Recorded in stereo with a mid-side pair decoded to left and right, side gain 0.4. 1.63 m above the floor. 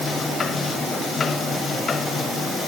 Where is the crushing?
No crushing in this recording.